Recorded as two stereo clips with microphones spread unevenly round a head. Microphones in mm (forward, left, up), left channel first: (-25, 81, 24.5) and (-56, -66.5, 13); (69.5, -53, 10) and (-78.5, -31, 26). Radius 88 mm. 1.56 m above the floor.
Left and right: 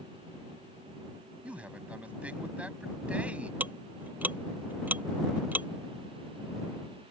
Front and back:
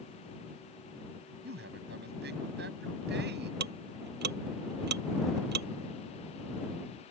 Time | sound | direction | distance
1.4 | a man speaking | 175° left | ?
3.6 | ticking | straight behind | ?